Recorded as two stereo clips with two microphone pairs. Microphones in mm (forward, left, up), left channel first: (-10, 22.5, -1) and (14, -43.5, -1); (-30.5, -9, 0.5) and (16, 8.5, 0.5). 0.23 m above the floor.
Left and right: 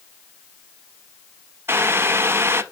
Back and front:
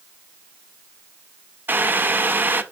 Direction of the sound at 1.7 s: 25° right.